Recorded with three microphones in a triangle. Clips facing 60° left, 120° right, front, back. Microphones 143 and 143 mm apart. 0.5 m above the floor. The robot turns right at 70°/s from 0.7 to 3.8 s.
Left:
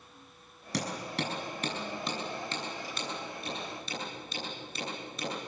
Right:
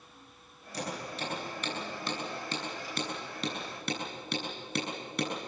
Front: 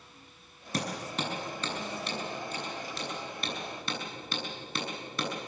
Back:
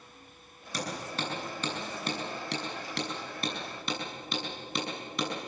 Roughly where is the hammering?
Ahead left.